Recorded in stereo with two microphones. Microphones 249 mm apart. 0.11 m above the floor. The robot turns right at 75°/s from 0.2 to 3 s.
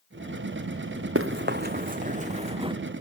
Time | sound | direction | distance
1.1 | running footsteps | 60° right (ahead or behind) | 0.7 m